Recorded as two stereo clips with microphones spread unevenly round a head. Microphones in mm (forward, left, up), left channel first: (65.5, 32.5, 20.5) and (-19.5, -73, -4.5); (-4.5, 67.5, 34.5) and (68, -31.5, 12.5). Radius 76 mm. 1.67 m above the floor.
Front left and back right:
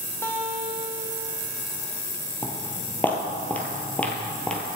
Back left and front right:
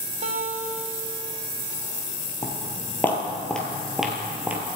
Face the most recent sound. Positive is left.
turn(degrees=30)